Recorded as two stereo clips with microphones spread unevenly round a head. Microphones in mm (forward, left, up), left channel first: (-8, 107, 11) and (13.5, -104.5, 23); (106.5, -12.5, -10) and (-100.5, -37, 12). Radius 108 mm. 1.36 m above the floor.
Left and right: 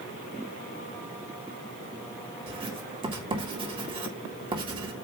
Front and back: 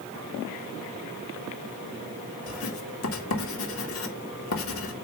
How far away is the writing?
About 1.9 m.